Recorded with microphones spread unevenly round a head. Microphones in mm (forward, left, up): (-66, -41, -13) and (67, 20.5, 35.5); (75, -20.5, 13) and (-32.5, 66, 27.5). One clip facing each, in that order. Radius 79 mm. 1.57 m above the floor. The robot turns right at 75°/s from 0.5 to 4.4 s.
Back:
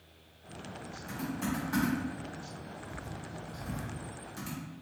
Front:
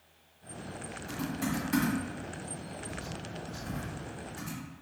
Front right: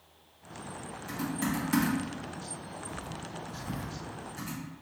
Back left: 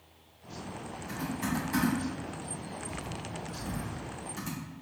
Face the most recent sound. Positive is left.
turn(degrees=165)